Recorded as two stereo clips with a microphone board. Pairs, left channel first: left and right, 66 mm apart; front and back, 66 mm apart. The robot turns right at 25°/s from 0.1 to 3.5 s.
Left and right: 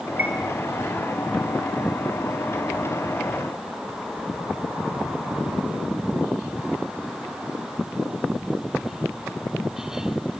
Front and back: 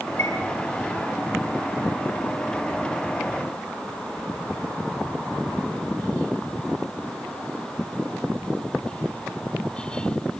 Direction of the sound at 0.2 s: 35° right.